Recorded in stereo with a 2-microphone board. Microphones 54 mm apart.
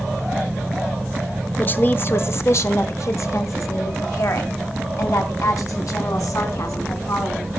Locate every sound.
1.6 s a woman speaking: 30° left (ahead or behind), 1.0 m; by 7.5 s 75° left (ahead or behind), 4.5 m